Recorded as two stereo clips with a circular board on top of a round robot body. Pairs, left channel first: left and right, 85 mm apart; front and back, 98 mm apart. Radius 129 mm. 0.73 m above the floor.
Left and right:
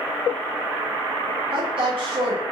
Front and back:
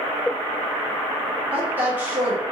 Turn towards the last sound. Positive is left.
turn(degrees=-105)